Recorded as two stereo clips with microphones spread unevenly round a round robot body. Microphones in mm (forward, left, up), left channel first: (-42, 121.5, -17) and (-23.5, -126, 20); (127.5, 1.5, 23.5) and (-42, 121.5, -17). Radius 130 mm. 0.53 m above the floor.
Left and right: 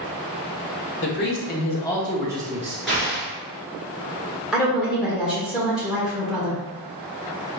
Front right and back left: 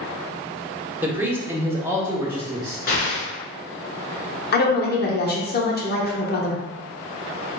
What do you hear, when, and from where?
1.0 s a man speaking: 75° left, 1.1 m; by 2.8 s 145° right, 1.0 m
2.9 s an explosion: 5° left, 1.7 m
4.5 s a woman speaking: 5° left, 1.1 m